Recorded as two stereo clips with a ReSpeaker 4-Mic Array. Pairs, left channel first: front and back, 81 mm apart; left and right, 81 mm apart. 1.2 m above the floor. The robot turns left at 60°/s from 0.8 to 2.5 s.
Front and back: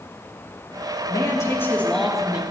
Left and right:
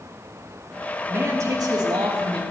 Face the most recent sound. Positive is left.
turn(degrees=-110)